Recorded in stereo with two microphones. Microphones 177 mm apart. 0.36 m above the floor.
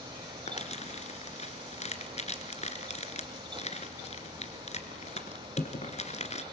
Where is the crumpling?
40° left (ahead or behind), 2.0 m.